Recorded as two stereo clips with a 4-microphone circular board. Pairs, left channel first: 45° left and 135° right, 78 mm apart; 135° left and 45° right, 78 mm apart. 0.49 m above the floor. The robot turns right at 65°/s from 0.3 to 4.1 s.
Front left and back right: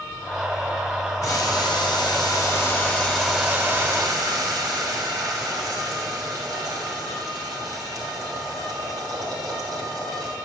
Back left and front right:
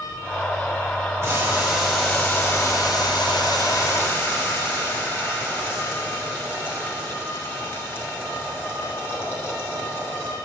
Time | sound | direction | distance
1.2 | boiling | straight ahead | 3 m